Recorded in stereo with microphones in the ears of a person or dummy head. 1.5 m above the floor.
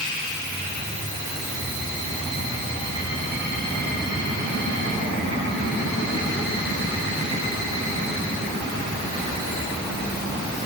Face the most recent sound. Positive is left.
No sound to turn to.